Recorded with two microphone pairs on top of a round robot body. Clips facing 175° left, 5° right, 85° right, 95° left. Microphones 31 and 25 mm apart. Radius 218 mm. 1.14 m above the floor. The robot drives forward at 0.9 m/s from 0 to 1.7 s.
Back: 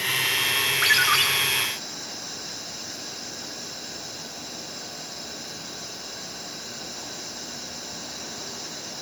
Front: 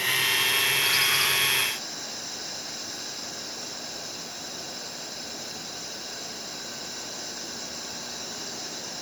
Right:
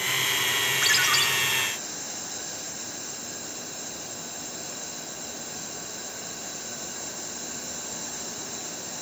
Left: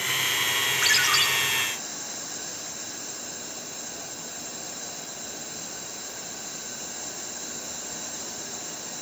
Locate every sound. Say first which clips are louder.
0.8 s a ringtone: back 4 dB, left 1 dB; straight behind, 6.5 m